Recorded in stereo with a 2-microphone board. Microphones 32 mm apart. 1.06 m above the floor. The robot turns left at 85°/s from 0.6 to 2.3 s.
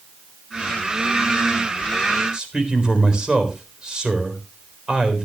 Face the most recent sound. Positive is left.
turn(degrees=-25)  # may be behind; listen again after turning